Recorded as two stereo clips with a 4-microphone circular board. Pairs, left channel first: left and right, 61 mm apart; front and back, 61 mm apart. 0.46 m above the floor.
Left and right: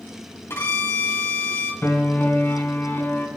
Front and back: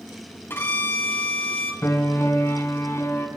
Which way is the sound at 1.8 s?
35° left.